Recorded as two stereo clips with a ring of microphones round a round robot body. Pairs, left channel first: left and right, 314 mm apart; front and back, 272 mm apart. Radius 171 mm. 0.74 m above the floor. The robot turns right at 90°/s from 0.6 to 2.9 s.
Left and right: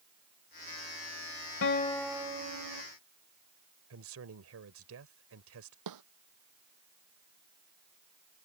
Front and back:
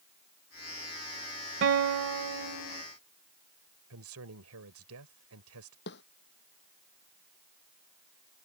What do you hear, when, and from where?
1.6 s a guitar: 140° left; by 2.8 s 110° right
3.9 s a man speaking: 135° right
5.9 s a snare drum: 60° right